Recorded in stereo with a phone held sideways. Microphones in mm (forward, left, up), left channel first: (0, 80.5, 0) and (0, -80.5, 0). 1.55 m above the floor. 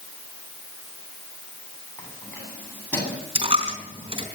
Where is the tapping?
No tapping in this recording.